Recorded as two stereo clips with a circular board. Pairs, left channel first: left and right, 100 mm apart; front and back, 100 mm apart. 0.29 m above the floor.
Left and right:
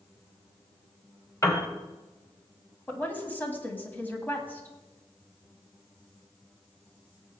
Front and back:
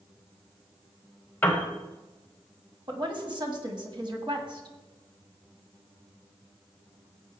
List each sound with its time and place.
1.4 s a piano: 55° left, 1.8 m
2.9 s a woman speaking: 160° left, 1.9 m